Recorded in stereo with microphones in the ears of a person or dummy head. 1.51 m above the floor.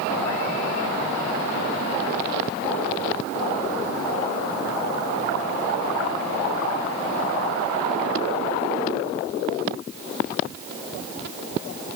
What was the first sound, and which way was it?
Only background noise.